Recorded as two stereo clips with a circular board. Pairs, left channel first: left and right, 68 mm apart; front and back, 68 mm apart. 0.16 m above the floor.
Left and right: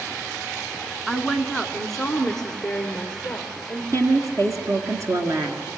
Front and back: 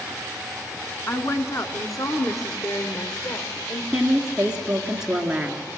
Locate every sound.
1.1 s a woman speaking: 10° right, 1.7 m; by 3.8 s 15° left, 3.5 m
3.9 s a woman speaking: 105° right, 2 m